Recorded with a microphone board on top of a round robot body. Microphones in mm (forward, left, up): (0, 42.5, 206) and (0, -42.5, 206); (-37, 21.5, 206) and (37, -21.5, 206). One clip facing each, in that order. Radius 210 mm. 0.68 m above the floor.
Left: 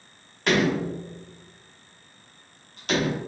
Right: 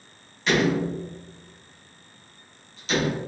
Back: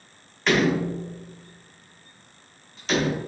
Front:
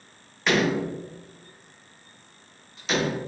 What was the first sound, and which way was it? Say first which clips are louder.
A door slam: even, back 2 dB; 55° left.